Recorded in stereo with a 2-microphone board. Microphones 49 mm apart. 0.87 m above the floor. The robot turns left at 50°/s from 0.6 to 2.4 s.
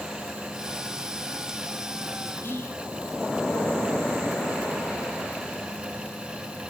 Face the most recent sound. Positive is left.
turn(degrees=55)  # may be behind; listen again after turning